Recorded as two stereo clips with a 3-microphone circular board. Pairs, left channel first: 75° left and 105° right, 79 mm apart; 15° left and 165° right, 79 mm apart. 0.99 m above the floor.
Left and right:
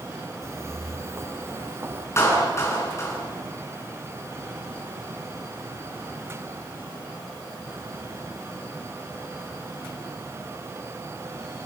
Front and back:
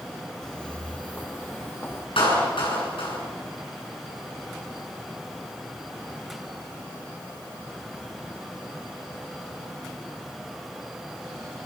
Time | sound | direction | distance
0.4 | footsteps | 65° right | 1.3 m
2.2 | a clap | 20° left | 8 m